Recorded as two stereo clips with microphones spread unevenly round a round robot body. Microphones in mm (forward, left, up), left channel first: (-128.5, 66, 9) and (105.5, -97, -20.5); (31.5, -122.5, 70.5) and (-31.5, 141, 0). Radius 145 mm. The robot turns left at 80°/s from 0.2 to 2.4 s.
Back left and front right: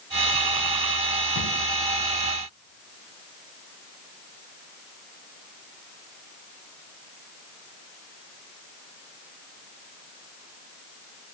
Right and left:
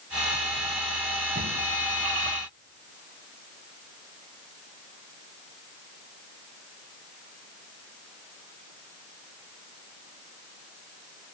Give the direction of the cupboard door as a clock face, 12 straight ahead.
6 o'clock.